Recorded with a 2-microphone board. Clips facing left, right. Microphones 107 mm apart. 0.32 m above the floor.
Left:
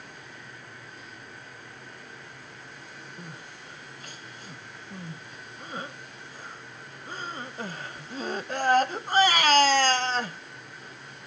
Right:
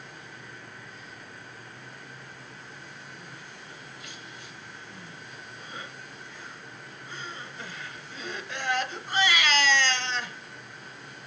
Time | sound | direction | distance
3.2 | crying | 40° left (ahead or behind) | 0.8 m